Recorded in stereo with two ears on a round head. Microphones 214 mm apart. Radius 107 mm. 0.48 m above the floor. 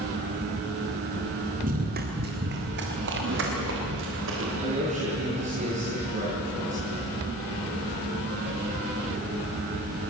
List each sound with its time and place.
1.6 s running footsteps: 35° right (ahead or behind), 4 m; by 4.5 s 55° right (ahead or behind), 8 m
4.6 s a man speaking: 30° right (ahead or behind), 9.5 m